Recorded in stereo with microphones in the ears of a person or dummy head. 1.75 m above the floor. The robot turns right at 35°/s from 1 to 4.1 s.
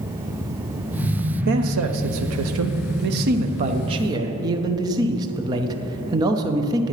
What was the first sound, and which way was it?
A man speaking, 115° right.